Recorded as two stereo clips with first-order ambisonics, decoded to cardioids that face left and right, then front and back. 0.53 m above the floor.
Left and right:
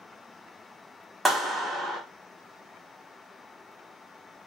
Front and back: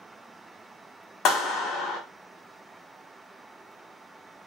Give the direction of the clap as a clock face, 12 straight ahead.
12 o'clock.